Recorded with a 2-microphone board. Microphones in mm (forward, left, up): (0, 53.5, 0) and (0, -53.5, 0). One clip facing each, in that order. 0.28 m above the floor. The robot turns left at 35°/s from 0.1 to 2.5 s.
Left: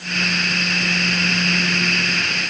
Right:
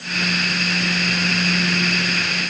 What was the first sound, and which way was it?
Only background noise.